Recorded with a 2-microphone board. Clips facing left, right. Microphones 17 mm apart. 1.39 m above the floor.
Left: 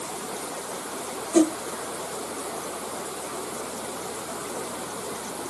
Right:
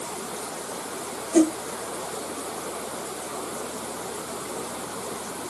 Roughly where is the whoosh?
Left.